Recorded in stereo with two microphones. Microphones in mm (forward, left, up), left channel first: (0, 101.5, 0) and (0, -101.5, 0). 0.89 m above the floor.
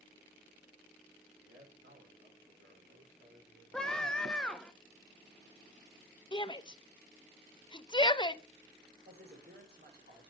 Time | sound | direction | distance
1.4 | a man speaking | 75° right (ahead or behind) | 3 m
3.7 | a scream | 5° left (ahead or behind) | 0.8 m
6.3 | a shout | 25° left (ahead or behind) | 0.6 m
9.1 | a man speaking | 55° right (ahead or behind) | 4 m